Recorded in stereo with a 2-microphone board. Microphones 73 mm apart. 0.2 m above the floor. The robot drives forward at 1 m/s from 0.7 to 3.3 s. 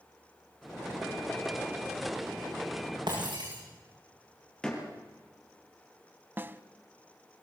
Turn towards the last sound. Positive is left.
turn(degrees=-25)  # may be behind; listen again after turning